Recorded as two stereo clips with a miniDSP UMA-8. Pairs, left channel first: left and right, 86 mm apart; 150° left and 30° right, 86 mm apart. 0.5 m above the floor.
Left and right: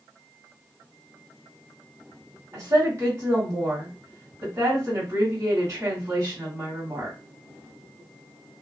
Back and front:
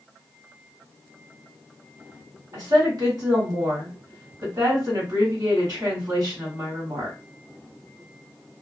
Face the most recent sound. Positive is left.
turn(degrees=-55)